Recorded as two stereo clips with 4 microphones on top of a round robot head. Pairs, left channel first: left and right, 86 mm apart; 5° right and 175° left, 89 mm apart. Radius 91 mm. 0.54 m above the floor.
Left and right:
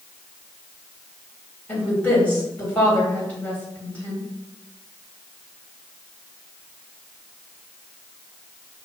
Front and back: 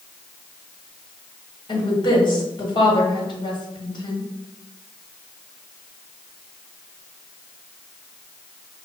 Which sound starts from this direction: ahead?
A woman speaking, at 1.7 s.